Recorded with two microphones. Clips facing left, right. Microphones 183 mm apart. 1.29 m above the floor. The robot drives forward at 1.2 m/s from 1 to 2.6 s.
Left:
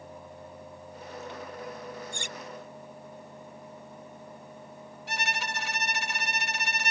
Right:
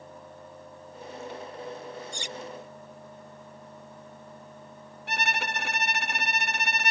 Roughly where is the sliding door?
I don't hear a sliding door.